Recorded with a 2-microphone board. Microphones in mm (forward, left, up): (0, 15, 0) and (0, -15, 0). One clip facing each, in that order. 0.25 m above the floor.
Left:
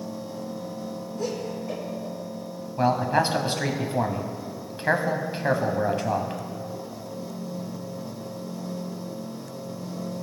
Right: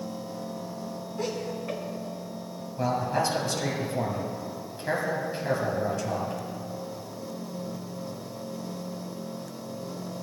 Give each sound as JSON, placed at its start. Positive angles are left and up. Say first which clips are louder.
{"t": 1.2, "sound": "laughter", "louder": "left 1 dB", "side_deg": -45, "distance_m": 2.5}
{"t": 2.8, "sound": "a man speaking", "louder": "left 5 dB", "side_deg": 45, "distance_m": 1.2}